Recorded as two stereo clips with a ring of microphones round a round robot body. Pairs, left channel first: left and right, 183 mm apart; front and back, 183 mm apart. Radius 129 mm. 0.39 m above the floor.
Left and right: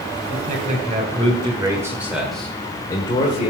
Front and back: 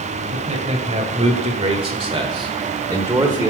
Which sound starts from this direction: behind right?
A man speaking, at 0.3 s.